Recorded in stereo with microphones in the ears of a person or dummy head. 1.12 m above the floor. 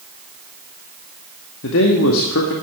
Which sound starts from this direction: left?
A man speaking, at 1.6 s.